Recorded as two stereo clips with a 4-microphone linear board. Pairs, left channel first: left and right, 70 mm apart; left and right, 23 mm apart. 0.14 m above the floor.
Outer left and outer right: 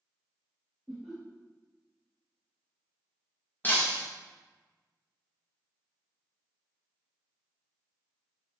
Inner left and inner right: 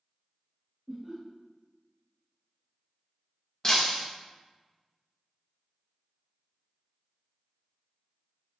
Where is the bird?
I don't hear a bird.